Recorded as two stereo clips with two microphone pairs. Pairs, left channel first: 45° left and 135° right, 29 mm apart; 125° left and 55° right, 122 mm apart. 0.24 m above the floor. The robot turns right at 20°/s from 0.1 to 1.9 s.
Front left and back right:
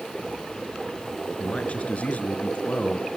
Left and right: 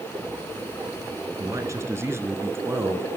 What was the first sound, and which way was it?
A man speaking, straight ahead.